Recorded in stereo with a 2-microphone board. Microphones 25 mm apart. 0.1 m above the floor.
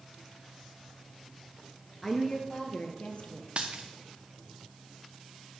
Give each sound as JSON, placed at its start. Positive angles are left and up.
{"t": 2.0, "sound": "a woman speaking", "side_deg": 20, "distance_m": 1.2}
{"t": 3.6, "sound": "a dropped coin", "side_deg": -55, "distance_m": 1.3}